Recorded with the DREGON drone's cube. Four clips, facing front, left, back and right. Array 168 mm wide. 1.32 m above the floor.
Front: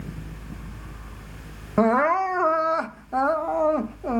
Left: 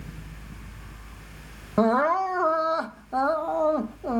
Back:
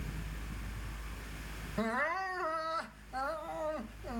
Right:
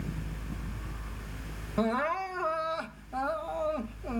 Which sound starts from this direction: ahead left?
Crying, at 1.8 s.